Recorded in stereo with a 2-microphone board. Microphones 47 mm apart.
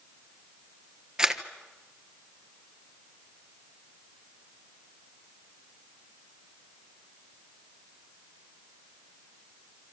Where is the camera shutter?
15° right (ahead or behind), 1.4 m.